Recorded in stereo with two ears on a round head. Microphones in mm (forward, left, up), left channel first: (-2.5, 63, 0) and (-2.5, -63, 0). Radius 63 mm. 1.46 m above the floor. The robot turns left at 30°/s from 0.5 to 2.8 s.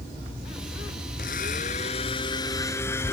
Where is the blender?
65° left; by 3.1 s 20° left.